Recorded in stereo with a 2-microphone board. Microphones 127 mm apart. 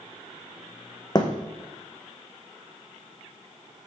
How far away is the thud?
About 2.5 m.